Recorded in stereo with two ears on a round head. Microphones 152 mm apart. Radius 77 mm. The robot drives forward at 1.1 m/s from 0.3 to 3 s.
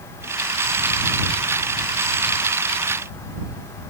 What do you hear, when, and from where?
Only background noise.